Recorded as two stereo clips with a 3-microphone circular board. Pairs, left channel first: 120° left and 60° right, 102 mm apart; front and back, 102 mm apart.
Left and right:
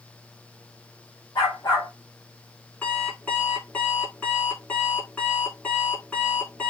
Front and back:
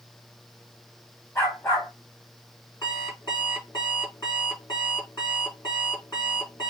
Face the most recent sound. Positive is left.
turn(degrees=45)